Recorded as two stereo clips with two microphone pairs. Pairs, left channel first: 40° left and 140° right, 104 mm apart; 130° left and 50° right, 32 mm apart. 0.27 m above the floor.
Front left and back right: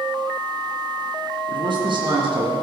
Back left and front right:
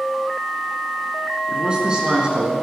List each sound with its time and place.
1.5 s a man speaking: 110° right, 3.5 m